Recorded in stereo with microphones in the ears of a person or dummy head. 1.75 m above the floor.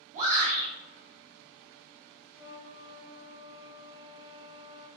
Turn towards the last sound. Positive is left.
turn(degrees=5)  # may be behind; listen again after turning